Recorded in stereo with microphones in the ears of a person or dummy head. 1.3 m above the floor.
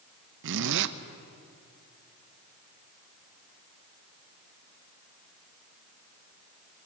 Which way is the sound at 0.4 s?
60° right (ahead or behind).